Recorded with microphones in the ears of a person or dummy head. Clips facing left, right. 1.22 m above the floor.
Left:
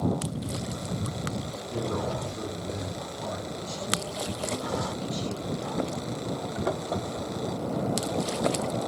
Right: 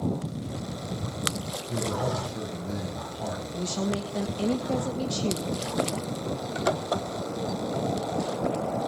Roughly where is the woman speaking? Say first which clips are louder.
Right 5 dB; right.